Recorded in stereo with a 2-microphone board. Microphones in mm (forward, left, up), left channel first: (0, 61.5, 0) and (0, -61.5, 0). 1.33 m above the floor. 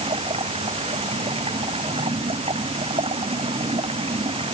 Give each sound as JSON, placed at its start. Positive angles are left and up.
{"t": 0.0, "sound": "running water", "side_deg": -50}